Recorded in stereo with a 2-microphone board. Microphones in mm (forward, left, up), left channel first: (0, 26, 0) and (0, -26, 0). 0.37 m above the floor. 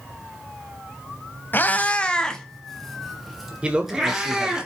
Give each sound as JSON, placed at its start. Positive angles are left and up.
{"t": 1.5, "sound": "a cat meowing", "side_deg": 45, "distance_m": 0.7}
{"t": 3.6, "sound": "a man speaking", "side_deg": -20, "distance_m": 1.2}